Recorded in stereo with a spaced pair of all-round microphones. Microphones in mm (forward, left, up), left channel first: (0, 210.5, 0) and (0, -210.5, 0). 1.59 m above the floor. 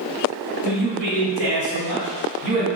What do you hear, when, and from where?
0.6 s a man speaking: 85° right, 1.8 m